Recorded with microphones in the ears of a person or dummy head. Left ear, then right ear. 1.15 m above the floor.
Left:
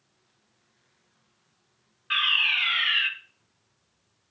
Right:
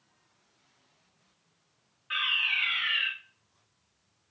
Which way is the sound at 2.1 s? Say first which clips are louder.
Left 5 dB; 25° left (ahead or behind).